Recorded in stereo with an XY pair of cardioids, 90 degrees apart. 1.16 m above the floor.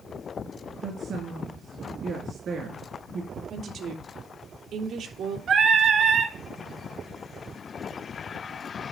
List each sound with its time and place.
0.8 s a woman speaking: 65° right, 2 m
3.5 s a woman speaking: 70° right, 3 m
5.5 s singing: 65° right, 2 m